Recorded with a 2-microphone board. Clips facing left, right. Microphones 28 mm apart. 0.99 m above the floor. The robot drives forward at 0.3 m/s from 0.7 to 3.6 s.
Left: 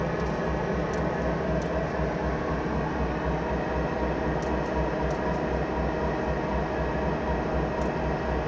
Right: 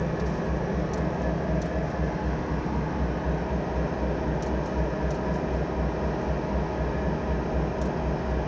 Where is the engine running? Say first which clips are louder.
Left 1 dB; 60° left (ahead or behind), 3 m; by 8.5 s 75° left (ahead or behind), 2.5 m.